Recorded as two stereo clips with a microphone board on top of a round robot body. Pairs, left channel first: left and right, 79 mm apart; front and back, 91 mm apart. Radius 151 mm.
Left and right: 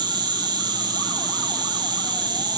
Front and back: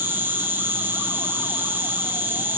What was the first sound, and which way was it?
An insect, 110° right.